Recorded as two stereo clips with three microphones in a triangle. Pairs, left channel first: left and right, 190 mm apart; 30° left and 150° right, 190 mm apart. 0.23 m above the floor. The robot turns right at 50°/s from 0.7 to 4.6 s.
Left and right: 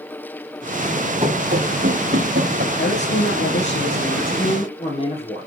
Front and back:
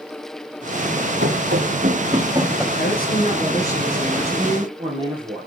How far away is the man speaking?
About 7.5 m.